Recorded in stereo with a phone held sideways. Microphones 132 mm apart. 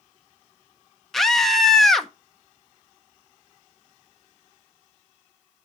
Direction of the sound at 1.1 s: Centre (ahead or behind).